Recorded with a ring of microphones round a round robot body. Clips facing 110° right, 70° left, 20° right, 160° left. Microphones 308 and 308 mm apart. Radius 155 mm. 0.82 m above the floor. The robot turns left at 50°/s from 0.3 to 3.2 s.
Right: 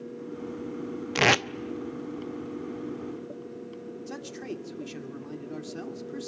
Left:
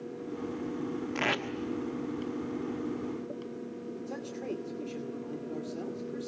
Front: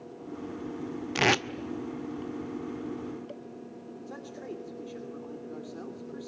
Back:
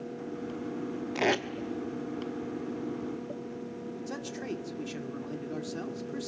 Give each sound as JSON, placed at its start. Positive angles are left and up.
{"t": 1.1, "sound": "tape being pulled", "azimuth_deg": -80, "distance_m": 0.7}
{"t": 4.1, "sound": "a man speaking", "azimuth_deg": -165, "distance_m": 2.5}